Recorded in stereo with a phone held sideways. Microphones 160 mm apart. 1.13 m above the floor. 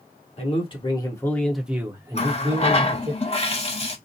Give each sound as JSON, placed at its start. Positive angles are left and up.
{"t": 0.4, "sound": "a man speaking", "side_deg": 45, "distance_m": 1.2}
{"t": 2.1, "sound": "a running tap", "side_deg": 40, "distance_m": 0.7}